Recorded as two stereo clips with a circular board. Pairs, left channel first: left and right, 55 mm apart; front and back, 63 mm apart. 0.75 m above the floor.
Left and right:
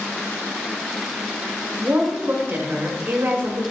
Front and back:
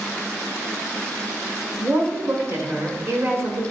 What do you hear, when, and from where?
1.8 s a woman speaking: 140° right, 1.5 m